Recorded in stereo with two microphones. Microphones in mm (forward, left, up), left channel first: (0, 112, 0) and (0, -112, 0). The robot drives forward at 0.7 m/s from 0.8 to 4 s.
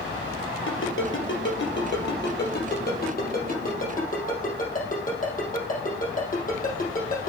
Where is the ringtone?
65° left (ahead or behind), 3 m; by 7.3 s 40° left (ahead or behind), 4.5 m.